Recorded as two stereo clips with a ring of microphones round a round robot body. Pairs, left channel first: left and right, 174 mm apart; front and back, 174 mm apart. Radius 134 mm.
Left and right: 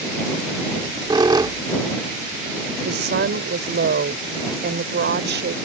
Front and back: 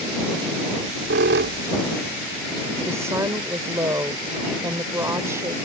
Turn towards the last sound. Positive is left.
turn(degrees=-100)